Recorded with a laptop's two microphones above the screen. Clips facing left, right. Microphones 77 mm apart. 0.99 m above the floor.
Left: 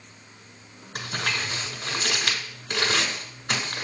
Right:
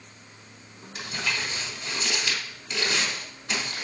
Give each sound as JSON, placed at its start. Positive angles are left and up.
{"t": 0.9, "sound": "crumpling", "side_deg": 55, "distance_m": 1.4}